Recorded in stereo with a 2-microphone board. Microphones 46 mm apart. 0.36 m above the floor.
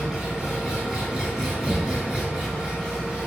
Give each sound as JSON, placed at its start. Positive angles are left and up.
{"t": 0.0, "sound": "an engine running", "side_deg": -10, "distance_m": 1.3}
{"t": 1.7, "sound": "knocking", "side_deg": 25, "distance_m": 0.6}